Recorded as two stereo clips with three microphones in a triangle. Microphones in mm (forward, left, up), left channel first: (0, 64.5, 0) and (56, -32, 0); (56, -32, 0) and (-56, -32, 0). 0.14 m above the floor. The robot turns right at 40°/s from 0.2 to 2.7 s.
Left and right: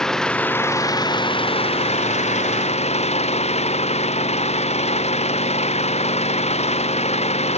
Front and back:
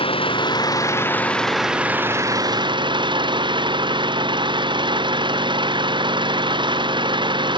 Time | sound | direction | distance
0.0 | an engine running | 35° left | ?